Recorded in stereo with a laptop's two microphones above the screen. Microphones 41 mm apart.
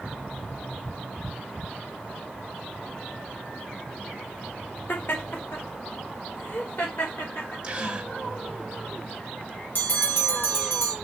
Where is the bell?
60° left (ahead or behind), 1.4 m.